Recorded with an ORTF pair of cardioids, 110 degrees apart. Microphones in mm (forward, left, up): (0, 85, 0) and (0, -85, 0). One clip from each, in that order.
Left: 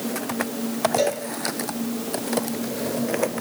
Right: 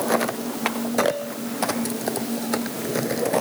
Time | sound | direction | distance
1.0 | a cowbell | 35° left | 6.5 m